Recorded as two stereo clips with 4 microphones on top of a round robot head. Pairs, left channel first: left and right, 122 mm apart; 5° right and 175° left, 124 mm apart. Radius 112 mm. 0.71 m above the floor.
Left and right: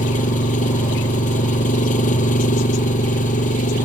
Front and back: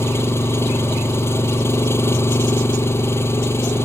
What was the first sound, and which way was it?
An engine running, 65° left.